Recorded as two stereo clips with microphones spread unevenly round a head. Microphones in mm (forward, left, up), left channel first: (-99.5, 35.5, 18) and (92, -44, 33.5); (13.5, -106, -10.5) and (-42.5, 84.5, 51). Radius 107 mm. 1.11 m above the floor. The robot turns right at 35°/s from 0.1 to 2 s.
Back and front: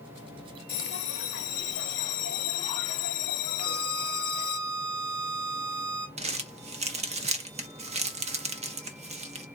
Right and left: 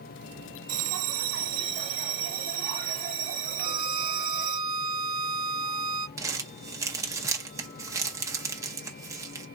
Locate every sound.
0.7 s a bell: 105° left, 0.9 m; by 4.6 s 150° left, 0.9 m
3.6 s a violin: 55° left, 1.1 m
6.2 s crumpling: 15° left, 0.8 m